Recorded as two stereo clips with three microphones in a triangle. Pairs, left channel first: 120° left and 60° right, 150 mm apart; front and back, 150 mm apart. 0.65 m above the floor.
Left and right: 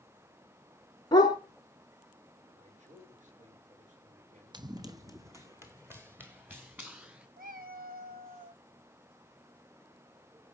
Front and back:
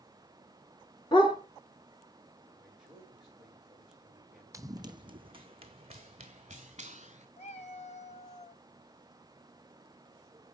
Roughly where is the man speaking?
Right.